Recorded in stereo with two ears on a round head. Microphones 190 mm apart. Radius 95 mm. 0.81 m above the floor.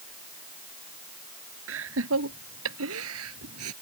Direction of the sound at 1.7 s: 70° right (ahead or behind).